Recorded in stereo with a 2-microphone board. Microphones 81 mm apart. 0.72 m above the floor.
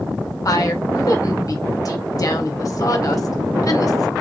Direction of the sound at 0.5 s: 50° left (ahead or behind).